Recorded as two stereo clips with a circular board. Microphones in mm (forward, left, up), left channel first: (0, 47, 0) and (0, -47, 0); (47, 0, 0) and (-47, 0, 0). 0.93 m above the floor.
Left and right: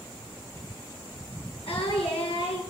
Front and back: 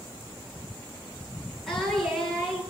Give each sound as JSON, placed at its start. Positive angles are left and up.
{"t": 1.7, "sound": "singing", "azimuth_deg": 90, "distance_m": 10.0}